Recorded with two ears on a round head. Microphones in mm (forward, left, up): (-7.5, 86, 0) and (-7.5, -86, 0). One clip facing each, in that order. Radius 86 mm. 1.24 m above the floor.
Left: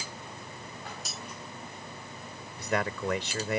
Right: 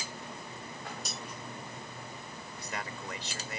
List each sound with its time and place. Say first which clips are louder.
1.1 s cutlery clinking: right 1 dB; centre (ahead or behind)
2.6 s a man speaking: left 11 dB; 50° left (ahead or behind)